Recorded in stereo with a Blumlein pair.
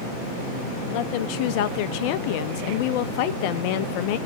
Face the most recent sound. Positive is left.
turn(degrees=45)